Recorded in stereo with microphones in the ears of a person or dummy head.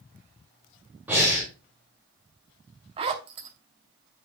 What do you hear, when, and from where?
1.1 s breathing: 15° right (ahead or behind), 4.5 m
3.0 s a zipper: 35° right (ahead or behind), 1.0 m